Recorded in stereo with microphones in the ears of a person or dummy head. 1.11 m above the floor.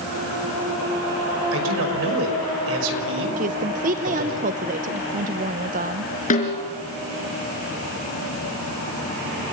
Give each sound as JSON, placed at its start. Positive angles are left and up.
{"t": 1.5, "sound": "a man speaking", "side_deg": -75, "distance_m": 6.0}
{"t": 3.4, "sound": "a woman speaking", "side_deg": -40, "distance_m": 0.9}
{"t": 6.3, "sound": "a snare drum", "side_deg": 45, "distance_m": 4.0}